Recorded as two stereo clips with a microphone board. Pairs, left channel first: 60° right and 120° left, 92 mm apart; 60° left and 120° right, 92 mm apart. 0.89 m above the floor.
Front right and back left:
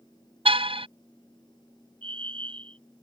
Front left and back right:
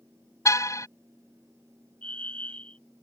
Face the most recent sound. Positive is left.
turn(degrees=135)